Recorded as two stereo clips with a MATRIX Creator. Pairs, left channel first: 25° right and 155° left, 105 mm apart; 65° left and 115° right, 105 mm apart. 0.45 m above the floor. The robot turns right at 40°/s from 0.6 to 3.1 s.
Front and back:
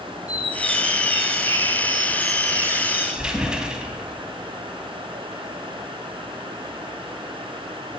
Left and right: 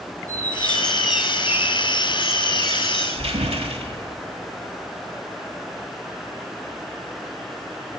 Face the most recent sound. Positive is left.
turn(degrees=-120)